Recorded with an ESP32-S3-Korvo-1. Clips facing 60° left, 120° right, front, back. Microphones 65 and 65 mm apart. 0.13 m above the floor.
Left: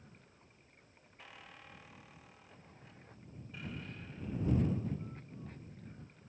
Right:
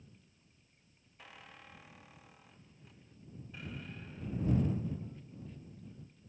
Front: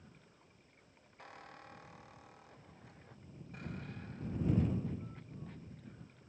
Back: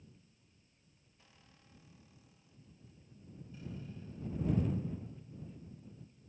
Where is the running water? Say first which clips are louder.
Left 3 dB, front 3 dB; 20° left.